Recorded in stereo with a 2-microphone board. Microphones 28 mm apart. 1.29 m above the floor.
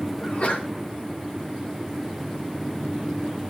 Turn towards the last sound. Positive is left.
turn(degrees=45)  # may be behind; listen again after turning